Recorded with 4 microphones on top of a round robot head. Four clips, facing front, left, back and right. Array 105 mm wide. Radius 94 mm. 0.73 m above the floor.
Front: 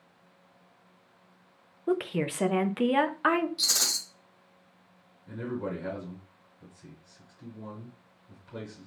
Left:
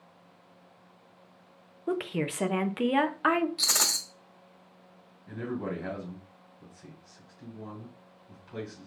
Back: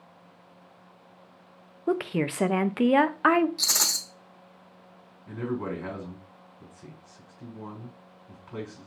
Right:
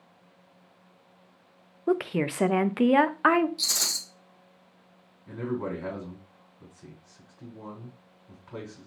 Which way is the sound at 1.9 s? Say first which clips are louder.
Right 5 dB, back 2 dB; 130° right.